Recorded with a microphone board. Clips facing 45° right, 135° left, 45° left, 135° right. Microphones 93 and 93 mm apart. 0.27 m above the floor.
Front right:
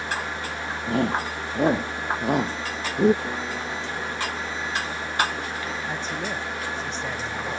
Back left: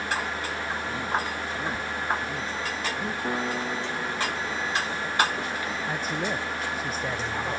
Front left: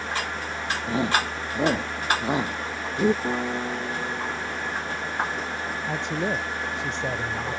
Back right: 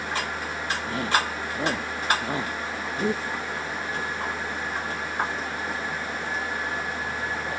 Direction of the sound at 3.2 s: 65° left.